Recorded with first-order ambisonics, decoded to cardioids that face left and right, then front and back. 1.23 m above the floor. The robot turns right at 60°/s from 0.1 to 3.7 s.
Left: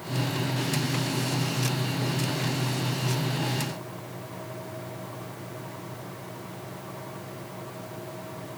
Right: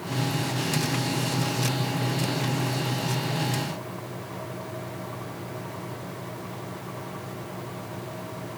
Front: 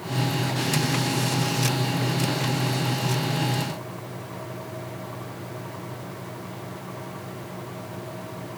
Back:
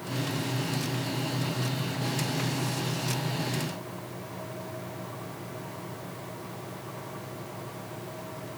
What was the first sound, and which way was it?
Only background noise.